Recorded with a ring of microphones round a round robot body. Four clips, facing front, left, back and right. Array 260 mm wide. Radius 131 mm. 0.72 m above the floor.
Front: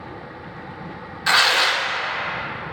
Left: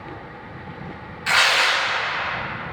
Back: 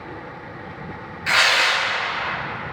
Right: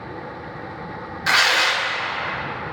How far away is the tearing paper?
About 0.9 m.